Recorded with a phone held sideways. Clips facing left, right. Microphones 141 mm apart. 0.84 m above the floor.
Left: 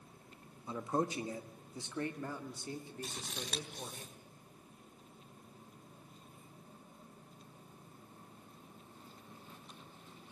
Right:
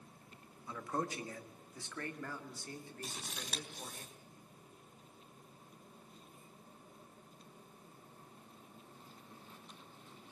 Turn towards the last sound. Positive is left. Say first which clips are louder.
# left 3 dB
turn(degrees=0)  # may be behind; listen again after turning